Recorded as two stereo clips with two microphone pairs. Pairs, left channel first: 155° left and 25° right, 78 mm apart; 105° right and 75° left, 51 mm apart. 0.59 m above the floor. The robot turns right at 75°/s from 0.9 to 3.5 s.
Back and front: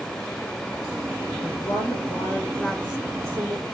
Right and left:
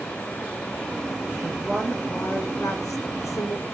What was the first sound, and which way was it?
A woman speaking, 135° left.